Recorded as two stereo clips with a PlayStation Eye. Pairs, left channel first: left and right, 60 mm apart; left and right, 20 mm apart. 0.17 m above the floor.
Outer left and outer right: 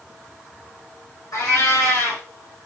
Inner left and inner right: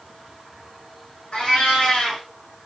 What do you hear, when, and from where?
1.3 s a cat meowing: 70° left (ahead or behind), 2 m